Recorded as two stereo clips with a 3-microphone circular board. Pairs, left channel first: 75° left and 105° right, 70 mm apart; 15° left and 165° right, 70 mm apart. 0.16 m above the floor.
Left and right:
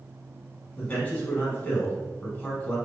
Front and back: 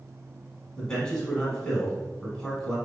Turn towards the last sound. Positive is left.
turn(degrees=70)